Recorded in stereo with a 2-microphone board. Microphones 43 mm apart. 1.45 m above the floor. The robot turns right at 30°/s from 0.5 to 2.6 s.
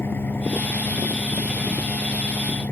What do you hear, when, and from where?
0.0 s an engine running: 60° left; by 2.7 s 120° left